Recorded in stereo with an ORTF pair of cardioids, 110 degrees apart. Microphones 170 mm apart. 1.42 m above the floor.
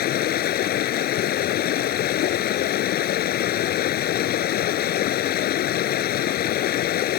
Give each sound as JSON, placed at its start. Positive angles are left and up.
{"t": 0.0, "sound": "running water", "azimuth_deg": 65}